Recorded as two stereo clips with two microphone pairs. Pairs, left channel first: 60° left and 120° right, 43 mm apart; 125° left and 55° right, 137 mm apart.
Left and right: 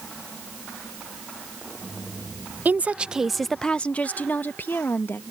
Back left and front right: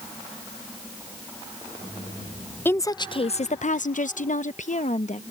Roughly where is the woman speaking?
Behind.